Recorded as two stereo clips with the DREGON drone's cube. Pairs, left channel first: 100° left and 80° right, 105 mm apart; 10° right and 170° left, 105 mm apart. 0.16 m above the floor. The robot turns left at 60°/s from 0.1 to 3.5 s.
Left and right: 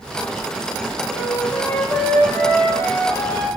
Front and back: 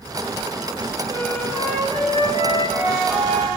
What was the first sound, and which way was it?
A flute, 160° right.